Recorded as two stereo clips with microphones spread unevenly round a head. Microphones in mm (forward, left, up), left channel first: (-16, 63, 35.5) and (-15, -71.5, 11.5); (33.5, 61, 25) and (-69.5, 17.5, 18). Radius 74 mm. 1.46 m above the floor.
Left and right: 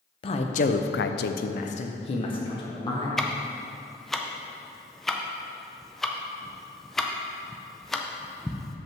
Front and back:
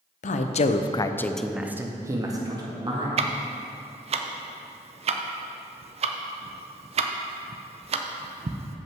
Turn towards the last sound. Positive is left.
turn(degrees=175)